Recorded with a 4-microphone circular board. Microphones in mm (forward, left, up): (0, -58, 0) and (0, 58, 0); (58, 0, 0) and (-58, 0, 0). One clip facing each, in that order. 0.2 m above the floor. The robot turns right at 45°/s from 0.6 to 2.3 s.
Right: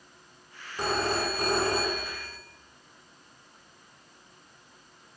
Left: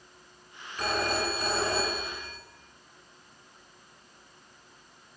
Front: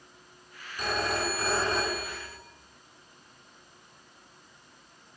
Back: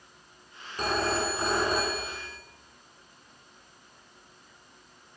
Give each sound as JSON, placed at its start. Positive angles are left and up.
{"t": 0.8, "sound": "a phone ringing", "azimuth_deg": -145, "distance_m": 1.2}